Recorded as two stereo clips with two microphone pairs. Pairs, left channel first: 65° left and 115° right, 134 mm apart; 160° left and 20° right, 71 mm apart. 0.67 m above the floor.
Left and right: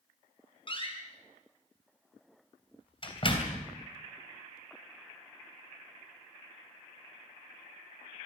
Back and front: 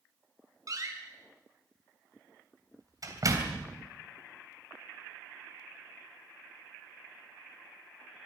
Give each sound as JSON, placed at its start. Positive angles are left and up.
{"t": 0.7, "sound": "a door slam", "azimuth_deg": 15, "distance_m": 3.0}